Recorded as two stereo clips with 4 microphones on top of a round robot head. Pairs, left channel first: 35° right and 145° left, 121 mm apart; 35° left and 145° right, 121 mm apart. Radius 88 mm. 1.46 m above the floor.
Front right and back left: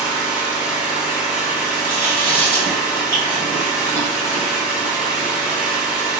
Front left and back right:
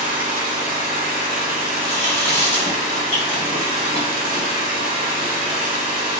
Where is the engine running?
130° right, 1.4 m.